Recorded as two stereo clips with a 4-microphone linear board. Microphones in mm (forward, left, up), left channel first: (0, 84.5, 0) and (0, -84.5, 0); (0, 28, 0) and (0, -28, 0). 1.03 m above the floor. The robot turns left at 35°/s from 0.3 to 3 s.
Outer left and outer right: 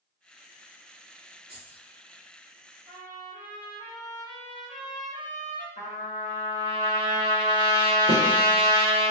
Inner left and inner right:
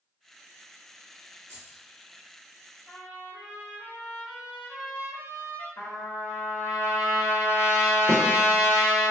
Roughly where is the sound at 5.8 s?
Left.